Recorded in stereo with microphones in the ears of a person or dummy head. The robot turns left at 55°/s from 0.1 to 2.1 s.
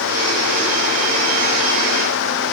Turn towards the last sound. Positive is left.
No sound to turn to.